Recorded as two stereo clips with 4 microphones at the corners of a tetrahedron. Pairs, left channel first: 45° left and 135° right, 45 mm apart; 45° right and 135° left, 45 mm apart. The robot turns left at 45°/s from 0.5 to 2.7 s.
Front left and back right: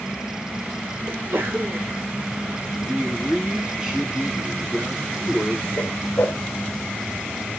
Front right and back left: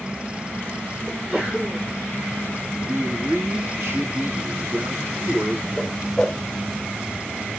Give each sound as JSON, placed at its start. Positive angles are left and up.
{"t": 1.1, "sound": "a sneeze", "azimuth_deg": -135, "distance_m": 1.6}
{"t": 2.8, "sound": "a man speaking", "azimuth_deg": 145, "distance_m": 6.0}
{"t": 5.8, "sound": "a whoosh", "azimuth_deg": 45, "distance_m": 2.0}